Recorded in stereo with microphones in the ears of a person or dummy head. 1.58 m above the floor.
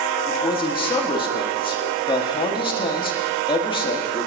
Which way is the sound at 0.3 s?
20° left (ahead or behind).